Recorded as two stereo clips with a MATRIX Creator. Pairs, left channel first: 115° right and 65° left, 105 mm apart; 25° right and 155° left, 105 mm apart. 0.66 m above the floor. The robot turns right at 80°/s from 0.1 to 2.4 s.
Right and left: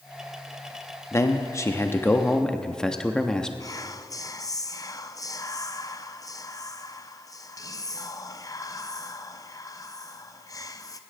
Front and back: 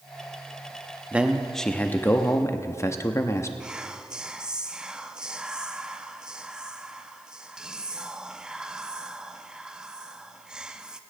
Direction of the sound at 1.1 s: 140° right.